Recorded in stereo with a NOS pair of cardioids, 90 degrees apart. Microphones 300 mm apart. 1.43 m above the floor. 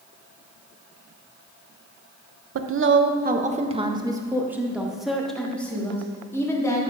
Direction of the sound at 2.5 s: 50° right.